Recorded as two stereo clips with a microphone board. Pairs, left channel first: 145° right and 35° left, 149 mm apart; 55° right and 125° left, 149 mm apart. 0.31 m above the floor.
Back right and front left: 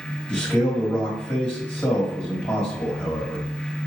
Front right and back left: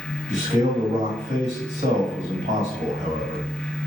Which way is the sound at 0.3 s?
130° left.